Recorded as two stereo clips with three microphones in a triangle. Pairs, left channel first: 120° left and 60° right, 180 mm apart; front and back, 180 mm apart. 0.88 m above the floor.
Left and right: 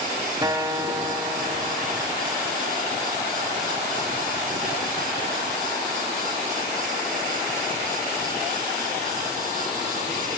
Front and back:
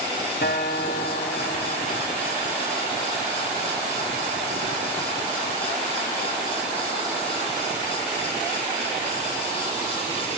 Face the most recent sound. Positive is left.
turn(degrees=5)